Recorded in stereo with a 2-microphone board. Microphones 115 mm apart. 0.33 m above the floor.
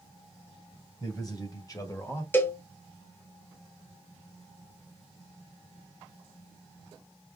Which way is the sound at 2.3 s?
15° left (ahead or behind).